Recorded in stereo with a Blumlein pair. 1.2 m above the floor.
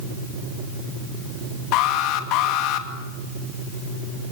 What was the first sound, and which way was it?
An alarm, 40° left.